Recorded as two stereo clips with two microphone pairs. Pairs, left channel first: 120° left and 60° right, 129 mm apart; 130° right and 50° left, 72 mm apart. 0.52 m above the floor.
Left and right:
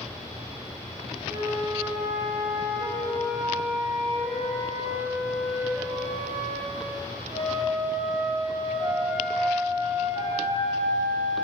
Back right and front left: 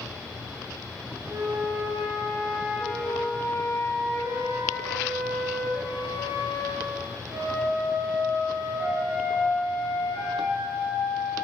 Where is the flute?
5° right, 10 m.